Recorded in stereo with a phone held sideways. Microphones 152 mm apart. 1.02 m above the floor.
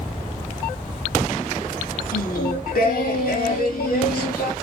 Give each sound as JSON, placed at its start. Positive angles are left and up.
{"t": 2.1, "sound": "singing", "side_deg": 80, "distance_m": 1.4}